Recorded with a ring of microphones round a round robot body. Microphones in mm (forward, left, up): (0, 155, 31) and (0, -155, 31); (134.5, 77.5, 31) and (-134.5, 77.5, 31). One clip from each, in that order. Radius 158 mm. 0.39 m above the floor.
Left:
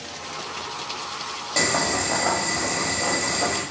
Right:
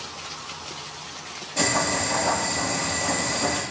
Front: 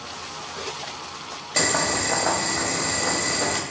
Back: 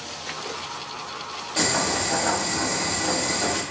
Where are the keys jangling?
I don't hear keys jangling.